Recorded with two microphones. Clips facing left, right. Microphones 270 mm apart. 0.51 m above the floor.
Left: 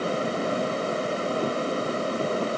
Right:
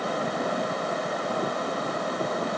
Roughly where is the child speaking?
I don't hear a child speaking.